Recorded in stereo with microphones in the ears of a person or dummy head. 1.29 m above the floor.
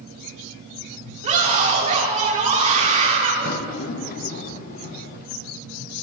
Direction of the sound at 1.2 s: 40° right (ahead or behind).